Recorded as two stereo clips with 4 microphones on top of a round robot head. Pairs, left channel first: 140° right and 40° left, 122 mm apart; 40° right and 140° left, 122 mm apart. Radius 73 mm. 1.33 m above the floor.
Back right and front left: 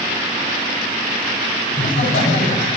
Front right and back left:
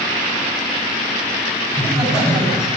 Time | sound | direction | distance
1.7 | laughter | 110° right | 5 m